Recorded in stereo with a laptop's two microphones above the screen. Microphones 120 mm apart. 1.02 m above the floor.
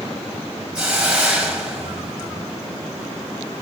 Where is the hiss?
5° right (ahead or behind), 6 m.